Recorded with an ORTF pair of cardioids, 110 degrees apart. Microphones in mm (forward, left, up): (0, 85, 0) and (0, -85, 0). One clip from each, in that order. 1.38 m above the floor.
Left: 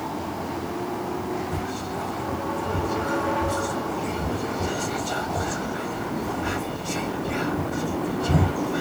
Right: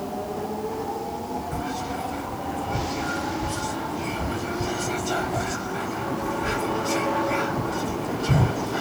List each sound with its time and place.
1.5 s whispering: 10° right, 1.6 m